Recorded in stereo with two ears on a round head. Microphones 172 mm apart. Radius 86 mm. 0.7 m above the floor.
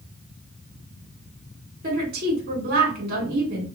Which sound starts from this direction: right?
A woman speaking, at 1.8 s.